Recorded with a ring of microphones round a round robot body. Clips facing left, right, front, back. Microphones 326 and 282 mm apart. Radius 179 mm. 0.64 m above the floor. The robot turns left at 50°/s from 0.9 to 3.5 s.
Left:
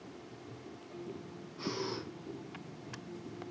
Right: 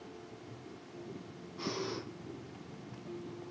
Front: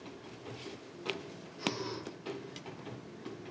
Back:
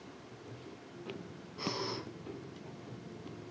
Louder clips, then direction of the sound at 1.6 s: Even, front 1 dB; 170° right.